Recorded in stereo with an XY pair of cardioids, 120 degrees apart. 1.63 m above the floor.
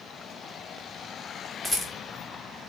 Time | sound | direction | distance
1.6 | a rattle | 25° left | 3 m